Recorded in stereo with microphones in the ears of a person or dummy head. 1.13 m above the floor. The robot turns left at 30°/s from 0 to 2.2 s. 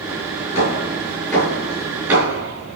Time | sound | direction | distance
0.6 | hammering | 35° left (ahead or behind) | 8 m